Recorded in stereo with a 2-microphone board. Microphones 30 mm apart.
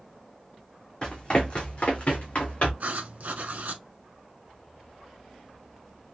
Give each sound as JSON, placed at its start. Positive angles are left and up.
{"t": 1.0, "sound": "running footsteps", "side_deg": 30, "distance_m": 1.7}
{"t": 2.8, "sound": "writing", "side_deg": -70, "distance_m": 0.8}